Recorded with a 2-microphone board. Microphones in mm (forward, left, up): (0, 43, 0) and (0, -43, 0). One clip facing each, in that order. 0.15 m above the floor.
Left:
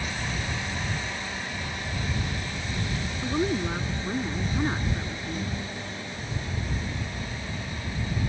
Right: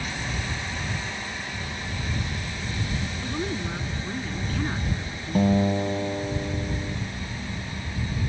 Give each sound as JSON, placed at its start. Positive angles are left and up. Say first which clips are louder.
{"t": 3.2, "sound": "a woman speaking", "louder": "left 6 dB", "side_deg": 20}
{"t": 5.3, "sound": "a guitar", "louder": "right 12 dB", "side_deg": -60}